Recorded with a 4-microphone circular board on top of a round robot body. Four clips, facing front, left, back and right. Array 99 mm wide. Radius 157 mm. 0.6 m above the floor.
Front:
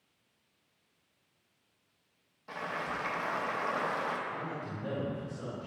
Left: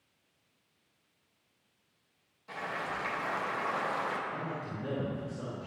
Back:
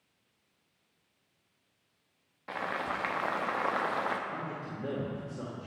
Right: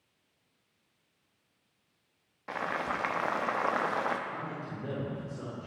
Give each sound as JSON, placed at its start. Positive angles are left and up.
{"t": 2.5, "sound": "boiling", "azimuth_deg": -120, "distance_m": 0.7}
{"t": 4.3, "sound": "a man speaking", "azimuth_deg": -170, "distance_m": 2.0}